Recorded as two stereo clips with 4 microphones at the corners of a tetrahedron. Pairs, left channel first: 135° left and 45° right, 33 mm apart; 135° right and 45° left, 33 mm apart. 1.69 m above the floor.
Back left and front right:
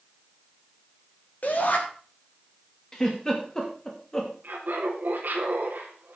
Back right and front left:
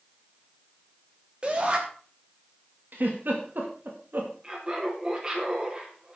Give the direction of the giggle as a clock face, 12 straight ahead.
10 o'clock.